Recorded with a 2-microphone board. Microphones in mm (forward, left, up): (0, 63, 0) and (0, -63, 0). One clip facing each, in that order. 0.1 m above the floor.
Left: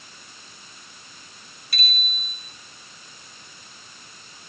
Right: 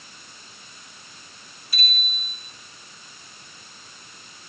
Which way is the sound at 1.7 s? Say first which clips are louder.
Even; 65° left (ahead or behind).